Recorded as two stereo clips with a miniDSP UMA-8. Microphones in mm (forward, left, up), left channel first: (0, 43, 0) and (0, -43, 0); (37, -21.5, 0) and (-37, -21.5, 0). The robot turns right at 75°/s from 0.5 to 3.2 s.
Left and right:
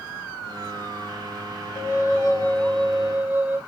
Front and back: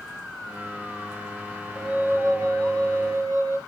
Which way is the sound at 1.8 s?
100° left.